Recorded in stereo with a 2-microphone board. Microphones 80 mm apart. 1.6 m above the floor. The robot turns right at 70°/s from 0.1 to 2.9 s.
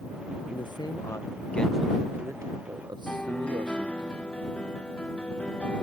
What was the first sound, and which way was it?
A man speaking, 90° left.